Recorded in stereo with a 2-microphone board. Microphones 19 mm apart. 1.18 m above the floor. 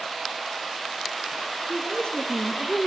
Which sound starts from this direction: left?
A woman speaking, at 1.7 s.